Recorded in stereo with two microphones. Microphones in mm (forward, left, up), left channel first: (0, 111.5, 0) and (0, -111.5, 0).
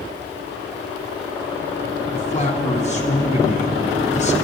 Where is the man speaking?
30° left (ahead or behind), 1.9 m.